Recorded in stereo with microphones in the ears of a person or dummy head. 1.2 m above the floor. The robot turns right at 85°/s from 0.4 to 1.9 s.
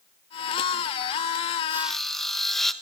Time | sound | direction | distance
1.7 | sawing | 20° right (ahead or behind) | 1.2 m